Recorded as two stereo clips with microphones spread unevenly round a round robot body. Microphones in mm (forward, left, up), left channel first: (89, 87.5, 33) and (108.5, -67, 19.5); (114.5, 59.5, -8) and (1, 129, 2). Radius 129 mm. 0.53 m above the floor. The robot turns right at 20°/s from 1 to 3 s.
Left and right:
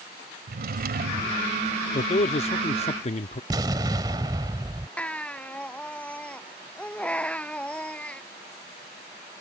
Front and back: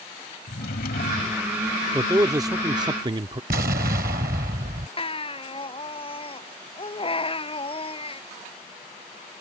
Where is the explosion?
155° right.